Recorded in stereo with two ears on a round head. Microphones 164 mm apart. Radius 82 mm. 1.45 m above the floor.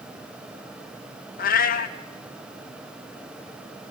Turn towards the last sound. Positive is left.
turn(degrees=50)  # may be behind; listen again after turning